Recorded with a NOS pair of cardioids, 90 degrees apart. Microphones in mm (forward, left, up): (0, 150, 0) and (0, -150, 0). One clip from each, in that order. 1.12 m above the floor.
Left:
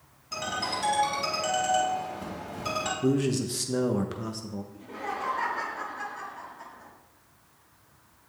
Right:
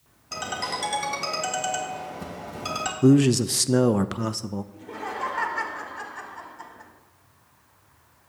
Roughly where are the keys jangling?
I don't hear keys jangling.